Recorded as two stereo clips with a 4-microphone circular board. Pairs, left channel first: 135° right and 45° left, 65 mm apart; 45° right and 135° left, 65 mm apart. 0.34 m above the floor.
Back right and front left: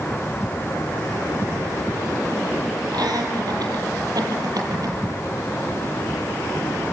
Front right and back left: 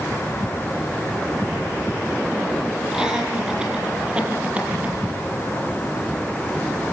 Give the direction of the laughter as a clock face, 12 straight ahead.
10 o'clock.